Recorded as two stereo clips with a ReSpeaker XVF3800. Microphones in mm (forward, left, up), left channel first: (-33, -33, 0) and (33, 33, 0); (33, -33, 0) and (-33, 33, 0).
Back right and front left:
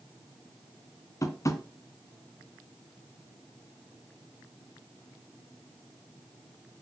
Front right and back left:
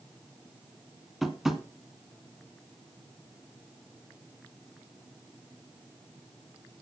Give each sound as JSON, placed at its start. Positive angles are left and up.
{"t": 1.2, "sound": "tapping", "azimuth_deg": -140, "distance_m": 1.7}